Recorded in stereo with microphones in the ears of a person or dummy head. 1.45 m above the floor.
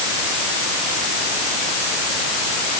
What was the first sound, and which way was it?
Only background noise.